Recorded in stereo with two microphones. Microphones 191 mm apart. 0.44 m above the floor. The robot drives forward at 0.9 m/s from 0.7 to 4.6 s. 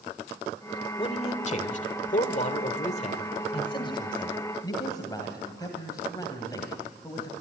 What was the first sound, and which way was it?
A man speaking, 30° left (ahead or behind).